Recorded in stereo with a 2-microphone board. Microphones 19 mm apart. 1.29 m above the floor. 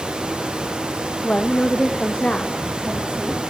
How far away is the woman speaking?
About 1.5 m.